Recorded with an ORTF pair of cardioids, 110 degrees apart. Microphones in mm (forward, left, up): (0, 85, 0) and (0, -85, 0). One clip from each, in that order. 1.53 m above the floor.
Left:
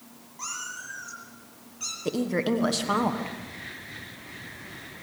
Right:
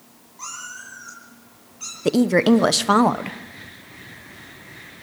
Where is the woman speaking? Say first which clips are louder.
Right 10 dB; 50° right, 1.1 m.